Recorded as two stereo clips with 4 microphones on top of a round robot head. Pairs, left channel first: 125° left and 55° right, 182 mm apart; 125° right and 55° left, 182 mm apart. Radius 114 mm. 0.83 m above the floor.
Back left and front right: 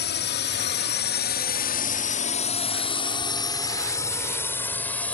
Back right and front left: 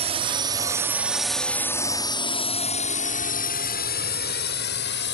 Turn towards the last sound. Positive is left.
turn(degrees=-150)